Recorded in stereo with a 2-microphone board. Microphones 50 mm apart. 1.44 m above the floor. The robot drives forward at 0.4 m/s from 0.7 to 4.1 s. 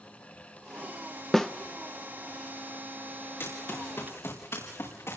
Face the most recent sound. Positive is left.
turn(degrees=70)  # may be behind; listen again after turning